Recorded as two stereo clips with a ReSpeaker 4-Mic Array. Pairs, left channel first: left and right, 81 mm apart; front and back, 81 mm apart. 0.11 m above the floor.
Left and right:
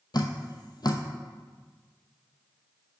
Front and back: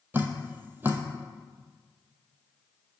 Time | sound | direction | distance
0.1 | dripping | 115° left | 0.7 m